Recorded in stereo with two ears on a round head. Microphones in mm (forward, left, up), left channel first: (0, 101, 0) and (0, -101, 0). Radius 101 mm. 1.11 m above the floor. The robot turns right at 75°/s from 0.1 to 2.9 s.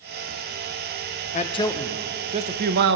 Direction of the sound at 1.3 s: 135° left.